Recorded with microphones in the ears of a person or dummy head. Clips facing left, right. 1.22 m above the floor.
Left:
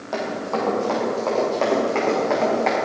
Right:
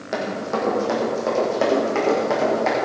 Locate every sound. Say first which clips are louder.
0.1 s running footsteps: even; 35° right (ahead or behind), 4 m; by 2.8 s 10° right (ahead or behind), 5 m